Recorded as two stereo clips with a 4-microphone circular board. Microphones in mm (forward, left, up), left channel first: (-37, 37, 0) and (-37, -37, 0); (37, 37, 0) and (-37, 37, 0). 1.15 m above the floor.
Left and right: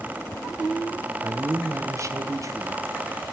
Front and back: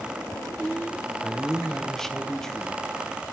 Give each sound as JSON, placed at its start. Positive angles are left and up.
{"t": 1.2, "sound": "a man speaking", "azimuth_deg": -80, "distance_m": 0.7}